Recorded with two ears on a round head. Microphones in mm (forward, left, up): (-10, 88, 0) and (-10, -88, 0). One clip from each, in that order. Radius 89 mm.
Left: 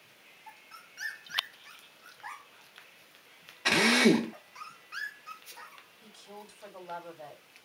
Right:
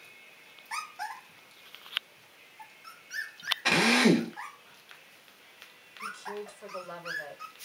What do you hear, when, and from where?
3.6 s a drill: 5° left (ahead or behind), 0.6 m
6.0 s a woman speaking: 65° right (ahead or behind), 2 m